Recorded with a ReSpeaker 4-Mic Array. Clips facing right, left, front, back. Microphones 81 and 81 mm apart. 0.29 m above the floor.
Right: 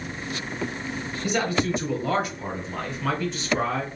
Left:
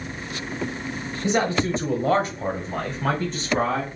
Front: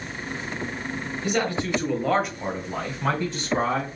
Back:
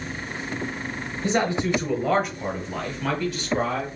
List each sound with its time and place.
1.2 s a man speaking: 135° left, 1.4 m; by 3.9 s 50° left, 2 m